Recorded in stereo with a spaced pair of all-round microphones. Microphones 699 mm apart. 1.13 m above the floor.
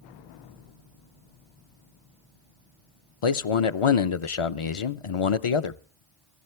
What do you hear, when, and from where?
3.2 s a man speaking: 50° left (ahead or behind), 0.6 m